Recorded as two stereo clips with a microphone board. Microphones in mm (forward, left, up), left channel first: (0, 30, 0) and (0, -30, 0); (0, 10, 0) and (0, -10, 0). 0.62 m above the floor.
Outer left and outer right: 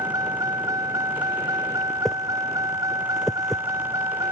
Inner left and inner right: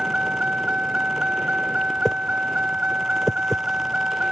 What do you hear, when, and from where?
0.0 s a vehicle: 80° right
2.0 s a whoosh: centre (ahead or behind)